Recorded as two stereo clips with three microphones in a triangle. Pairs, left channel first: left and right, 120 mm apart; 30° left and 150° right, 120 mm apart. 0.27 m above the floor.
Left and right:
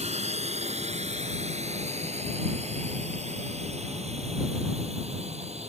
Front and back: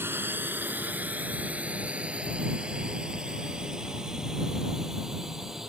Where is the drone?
80° right; by 5.7 s 65° right.